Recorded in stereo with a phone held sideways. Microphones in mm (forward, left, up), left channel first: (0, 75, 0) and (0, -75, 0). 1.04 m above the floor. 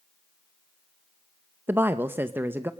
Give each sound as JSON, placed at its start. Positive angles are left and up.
{"t": 1.7, "sound": "a woman speaking", "side_deg": -15, "distance_m": 0.8}